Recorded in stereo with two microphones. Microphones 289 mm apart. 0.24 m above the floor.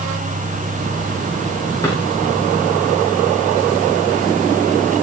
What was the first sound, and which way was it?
A drawer, 10° left (ahead or behind).